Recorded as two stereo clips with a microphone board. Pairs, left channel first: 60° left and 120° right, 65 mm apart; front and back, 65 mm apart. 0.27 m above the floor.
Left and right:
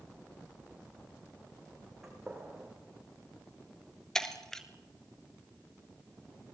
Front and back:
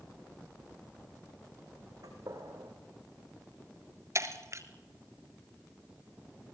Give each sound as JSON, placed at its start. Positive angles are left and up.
{"t": 2.0, "sound": "a gunshot", "azimuth_deg": 155, "distance_m": 8.0}
{"t": 4.2, "sound": "breaking glass", "azimuth_deg": 140, "distance_m": 1.9}